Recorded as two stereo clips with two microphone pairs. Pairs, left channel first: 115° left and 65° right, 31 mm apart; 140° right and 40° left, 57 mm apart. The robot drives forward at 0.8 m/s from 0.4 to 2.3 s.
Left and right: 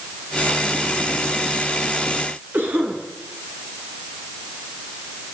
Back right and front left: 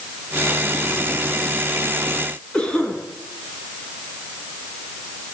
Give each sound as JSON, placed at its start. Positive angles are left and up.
{"t": 2.5, "sound": "a cough", "azimuth_deg": -65, "distance_m": 9.0}